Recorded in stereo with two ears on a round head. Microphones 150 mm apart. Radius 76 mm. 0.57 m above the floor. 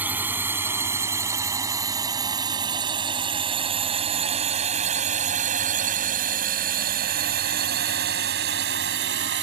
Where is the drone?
10° right (ahead or behind); by 9.4 s 70° right (ahead or behind).